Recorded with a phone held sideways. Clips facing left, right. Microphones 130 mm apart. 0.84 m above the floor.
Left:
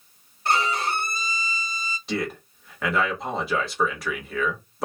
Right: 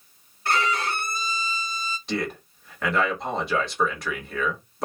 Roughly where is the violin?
Left.